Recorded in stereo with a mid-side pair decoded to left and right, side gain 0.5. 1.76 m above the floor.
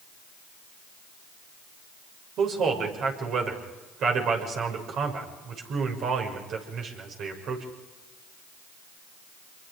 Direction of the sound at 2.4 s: 65° right.